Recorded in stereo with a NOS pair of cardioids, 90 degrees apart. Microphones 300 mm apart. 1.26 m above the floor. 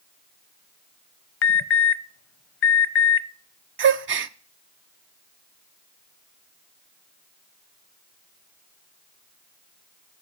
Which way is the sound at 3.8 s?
40° right.